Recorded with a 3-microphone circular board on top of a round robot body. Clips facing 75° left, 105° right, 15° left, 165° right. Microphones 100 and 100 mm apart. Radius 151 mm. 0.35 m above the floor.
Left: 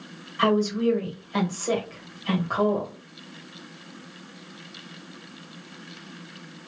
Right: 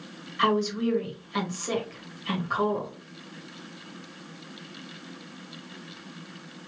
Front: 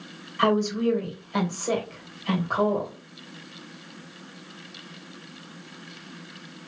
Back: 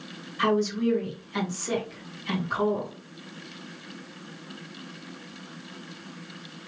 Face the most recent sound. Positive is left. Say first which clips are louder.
# left 3 dB, front 2 dB
turn(degrees=35)